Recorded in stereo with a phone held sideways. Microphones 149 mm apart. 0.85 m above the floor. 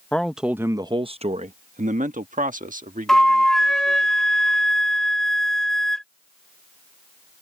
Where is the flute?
5° left (ahead or behind).